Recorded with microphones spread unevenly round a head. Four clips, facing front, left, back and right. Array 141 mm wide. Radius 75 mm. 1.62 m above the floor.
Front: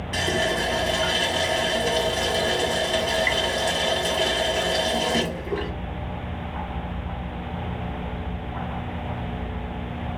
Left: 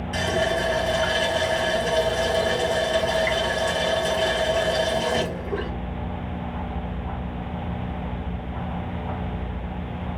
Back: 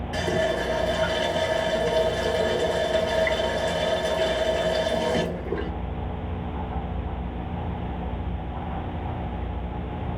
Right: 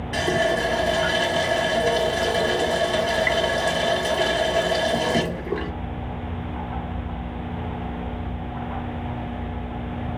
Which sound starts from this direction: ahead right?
A running tap, at 0.1 s.